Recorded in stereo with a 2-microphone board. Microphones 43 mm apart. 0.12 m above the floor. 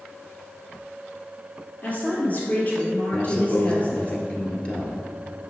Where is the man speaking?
25° left (ahead or behind), 1.7 m.